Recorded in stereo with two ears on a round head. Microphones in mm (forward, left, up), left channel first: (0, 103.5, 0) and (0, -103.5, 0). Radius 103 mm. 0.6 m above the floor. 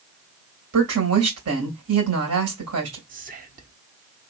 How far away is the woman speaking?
About 2.5 m.